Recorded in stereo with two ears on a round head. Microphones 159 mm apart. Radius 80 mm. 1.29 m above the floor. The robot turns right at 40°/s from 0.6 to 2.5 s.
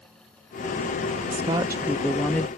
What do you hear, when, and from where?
1.3 s a woman speaking: 35° right; by 2.5 s 15° left